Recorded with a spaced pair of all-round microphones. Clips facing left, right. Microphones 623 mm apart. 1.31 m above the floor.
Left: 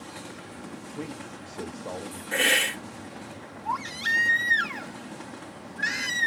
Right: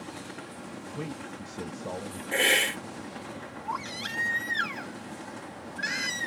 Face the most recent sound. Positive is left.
turn(degrees=25)  # may be behind; listen again after turning